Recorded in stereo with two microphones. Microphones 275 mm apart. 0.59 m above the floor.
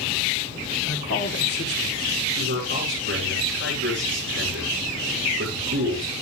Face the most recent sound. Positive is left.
turn(degrees=-45)  # may be behind; listen again after turning